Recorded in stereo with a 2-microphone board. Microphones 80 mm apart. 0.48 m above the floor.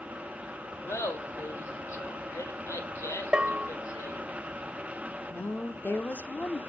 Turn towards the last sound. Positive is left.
turn(degrees=25)  # may be behind; listen again after turning